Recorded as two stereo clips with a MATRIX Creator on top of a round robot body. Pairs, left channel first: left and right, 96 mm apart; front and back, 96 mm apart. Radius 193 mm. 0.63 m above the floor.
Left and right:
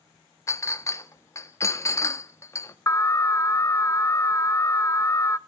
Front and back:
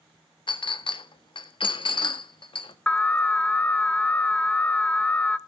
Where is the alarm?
70° left, 0.9 m.